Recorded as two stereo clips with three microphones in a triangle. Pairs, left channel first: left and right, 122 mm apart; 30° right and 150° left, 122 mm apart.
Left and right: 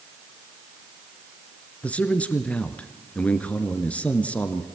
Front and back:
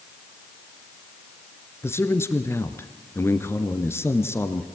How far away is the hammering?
I don't hear hammering.